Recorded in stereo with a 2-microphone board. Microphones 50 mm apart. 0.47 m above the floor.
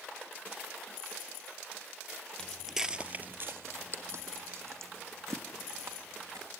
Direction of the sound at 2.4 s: 15° left (ahead or behind).